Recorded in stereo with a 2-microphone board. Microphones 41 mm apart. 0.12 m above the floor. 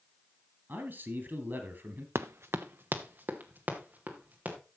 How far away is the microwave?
No microwave in this recording.